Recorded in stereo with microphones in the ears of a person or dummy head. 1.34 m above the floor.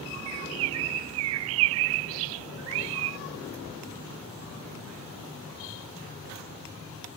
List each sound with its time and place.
0.3 s a bird: 80° right